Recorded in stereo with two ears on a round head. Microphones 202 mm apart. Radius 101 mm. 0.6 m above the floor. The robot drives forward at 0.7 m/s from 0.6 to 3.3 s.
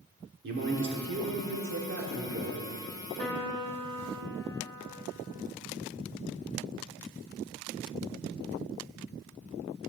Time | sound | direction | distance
0.4 | a man speaking | 50° right (ahead or behind) | 1.4 m
3.2 | a piano | 10° left (ahead or behind) | 2 m